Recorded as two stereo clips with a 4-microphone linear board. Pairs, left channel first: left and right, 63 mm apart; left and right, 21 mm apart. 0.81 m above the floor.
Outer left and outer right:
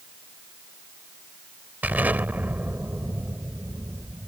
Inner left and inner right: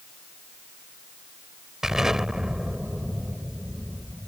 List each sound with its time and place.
1.8 s an explosion: 25° right (ahead or behind)